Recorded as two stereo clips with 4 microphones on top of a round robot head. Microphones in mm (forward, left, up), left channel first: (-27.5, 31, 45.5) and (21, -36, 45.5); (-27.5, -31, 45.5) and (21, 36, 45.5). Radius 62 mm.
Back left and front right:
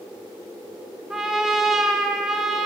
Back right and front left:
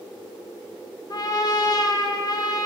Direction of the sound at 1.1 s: 140° right.